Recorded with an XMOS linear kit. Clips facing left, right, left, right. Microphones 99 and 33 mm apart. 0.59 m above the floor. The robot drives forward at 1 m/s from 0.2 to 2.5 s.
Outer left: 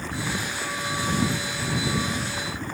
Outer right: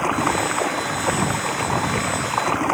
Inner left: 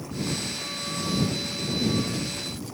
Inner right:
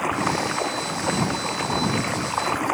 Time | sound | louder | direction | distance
0.0 | running water | outer right 10 dB, inner right 8 dB | 70° right (ahead or behind) | ?